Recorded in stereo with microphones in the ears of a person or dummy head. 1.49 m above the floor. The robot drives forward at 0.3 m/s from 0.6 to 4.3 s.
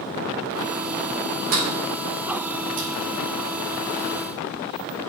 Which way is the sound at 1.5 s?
45° right (ahead or behind).